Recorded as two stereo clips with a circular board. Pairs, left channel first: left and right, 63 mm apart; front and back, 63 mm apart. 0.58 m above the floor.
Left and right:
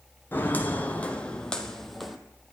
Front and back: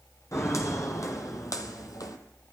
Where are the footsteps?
35° left, 1.9 m; by 2.2 s straight ahead, 1.5 m.